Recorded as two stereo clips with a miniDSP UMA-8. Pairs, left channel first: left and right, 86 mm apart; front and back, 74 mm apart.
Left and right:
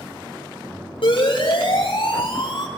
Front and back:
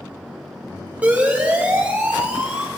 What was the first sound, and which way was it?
A siren, 105° left.